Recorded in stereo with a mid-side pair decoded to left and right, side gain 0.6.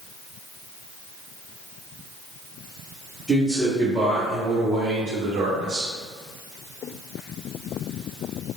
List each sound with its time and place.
3.3 s a man speaking: straight ahead, 1.1 m; by 5.9 s 70° right, 1.3 m